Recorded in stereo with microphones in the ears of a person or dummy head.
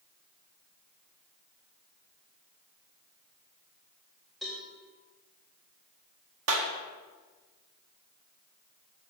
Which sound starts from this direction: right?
A clap, at 6.5 s.